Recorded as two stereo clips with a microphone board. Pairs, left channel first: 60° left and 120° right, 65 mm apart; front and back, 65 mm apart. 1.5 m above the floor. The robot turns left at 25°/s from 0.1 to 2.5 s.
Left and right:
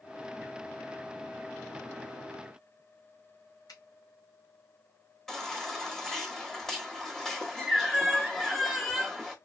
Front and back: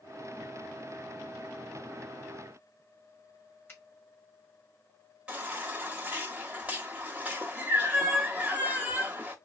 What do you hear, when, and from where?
3.7 s a finger snap: 55° left, 1.6 m
5.3 s a baby crying: 140° left, 1.1 m